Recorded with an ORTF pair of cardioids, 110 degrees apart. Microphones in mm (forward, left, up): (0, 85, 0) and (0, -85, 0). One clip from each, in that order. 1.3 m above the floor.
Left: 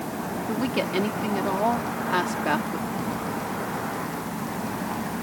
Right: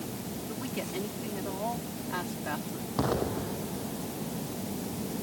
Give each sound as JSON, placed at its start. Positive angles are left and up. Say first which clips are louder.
{"t": 0.5, "sound": "a woman speaking", "louder": "left 11 dB", "azimuth_deg": 60}
{"t": 3.0, "sound": "an explosion", "louder": "left 1 dB", "azimuth_deg": -55}